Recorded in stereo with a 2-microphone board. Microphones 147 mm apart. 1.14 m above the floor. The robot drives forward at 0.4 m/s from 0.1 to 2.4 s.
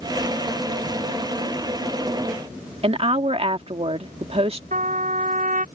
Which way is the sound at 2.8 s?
45° right (ahead or behind).